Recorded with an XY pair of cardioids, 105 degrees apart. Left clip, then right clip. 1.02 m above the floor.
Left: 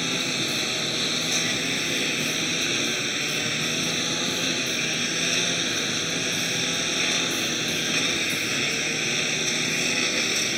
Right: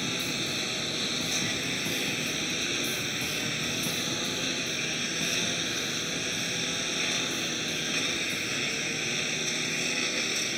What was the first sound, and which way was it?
A lawn mower, 30° left.